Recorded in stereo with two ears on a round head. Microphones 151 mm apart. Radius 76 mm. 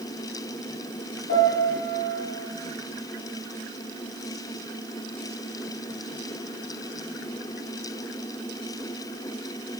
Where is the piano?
80° left, 2 m.